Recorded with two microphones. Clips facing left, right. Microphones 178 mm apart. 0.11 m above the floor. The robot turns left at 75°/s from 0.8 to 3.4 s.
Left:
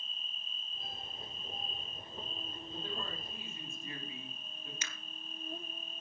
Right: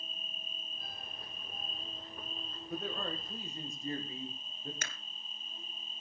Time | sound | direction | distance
0.0 | an insect | 60° right | 1.3 m
2.7 | a man speaking | 90° right | 5.5 m
4.8 | a camera shutter | 55° right (ahead or behind) | 1.3 m